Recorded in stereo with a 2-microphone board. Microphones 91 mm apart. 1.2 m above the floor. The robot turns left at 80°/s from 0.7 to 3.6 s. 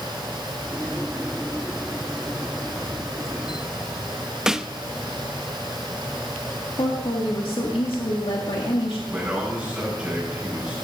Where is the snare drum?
5° right (ahead or behind), 0.5 m.